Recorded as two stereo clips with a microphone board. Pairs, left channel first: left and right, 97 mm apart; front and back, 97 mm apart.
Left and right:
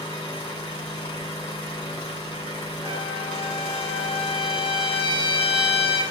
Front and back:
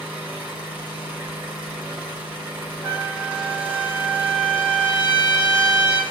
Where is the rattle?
I don't hear a rattle.